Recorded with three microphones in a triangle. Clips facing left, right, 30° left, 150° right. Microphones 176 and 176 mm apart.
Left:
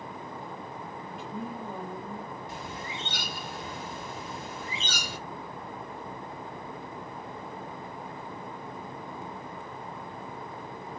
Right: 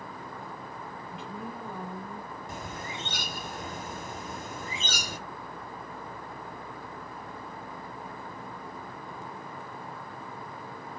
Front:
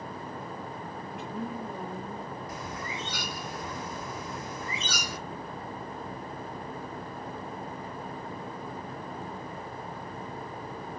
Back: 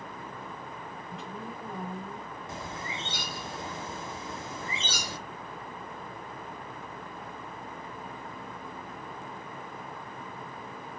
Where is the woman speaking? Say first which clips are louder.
Left 3 dB, front 6 dB; 60° left, 2.5 m.